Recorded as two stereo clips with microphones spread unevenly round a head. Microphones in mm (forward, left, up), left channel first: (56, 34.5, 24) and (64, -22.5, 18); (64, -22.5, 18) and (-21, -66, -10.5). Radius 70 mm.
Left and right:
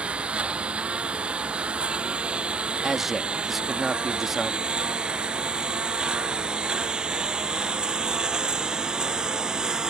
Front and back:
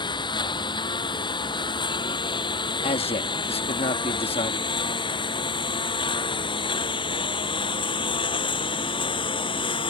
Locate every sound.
0.0 s a lawn mower: 10° right; by 9.9 s 5° right
2.8 s a man speaking: 5° left